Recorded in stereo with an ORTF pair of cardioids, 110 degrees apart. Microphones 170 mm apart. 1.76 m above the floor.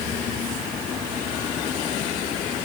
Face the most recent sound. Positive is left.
No sound to turn to.